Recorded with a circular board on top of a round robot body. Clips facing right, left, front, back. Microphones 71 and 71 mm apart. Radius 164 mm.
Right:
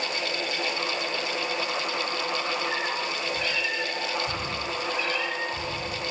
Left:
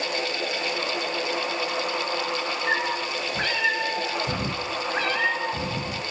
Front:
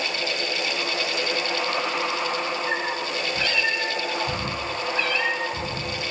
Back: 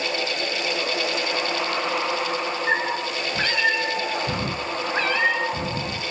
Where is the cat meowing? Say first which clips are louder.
Left 3 dB, back 3 dB; 130° left, 5 m.